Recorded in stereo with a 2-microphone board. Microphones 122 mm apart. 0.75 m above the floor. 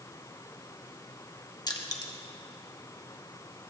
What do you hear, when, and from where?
1.7 s crushing: 35° left (ahead or behind), 1.1 m